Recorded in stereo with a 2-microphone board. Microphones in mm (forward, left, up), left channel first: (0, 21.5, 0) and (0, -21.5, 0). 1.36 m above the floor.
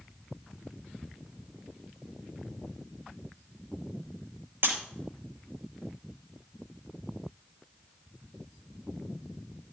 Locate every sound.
4.6 s breaking glass: 60° right (ahead or behind), 5 m